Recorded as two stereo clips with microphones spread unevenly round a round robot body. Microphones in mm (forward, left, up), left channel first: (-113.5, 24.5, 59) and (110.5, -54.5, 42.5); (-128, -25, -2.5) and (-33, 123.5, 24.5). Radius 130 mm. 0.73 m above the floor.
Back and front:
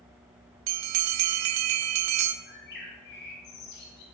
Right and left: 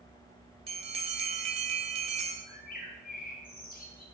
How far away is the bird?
About 2 m.